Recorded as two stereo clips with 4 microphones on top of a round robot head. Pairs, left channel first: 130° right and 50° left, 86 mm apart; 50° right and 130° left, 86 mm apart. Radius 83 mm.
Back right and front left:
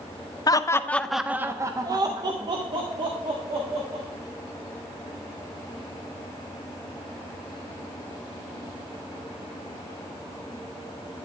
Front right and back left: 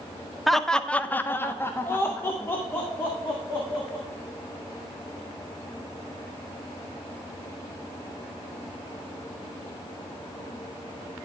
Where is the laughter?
135° right, 0.7 m; by 4.0 s 20° left, 2 m.